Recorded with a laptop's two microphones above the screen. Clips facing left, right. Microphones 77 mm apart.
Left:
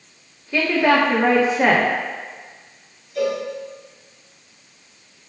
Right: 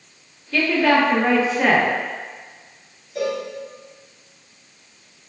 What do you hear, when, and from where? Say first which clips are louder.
0.5 s a woman speaking: even; 15° left (ahead or behind), 0.9 m
3.1 s a cowbell: left 2 dB; 30° right (ahead or behind), 2.5 m